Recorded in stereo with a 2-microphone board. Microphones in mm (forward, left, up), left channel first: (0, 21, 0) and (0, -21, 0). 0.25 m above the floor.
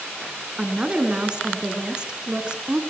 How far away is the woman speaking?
About 3 m.